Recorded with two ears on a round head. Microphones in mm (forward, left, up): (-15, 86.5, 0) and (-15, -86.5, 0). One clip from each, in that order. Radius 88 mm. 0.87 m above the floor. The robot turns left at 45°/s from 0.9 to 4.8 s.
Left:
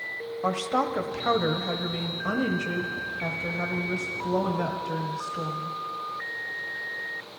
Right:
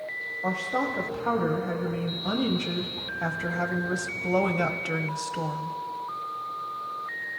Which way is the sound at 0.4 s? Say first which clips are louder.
Left 3 dB; 75° left.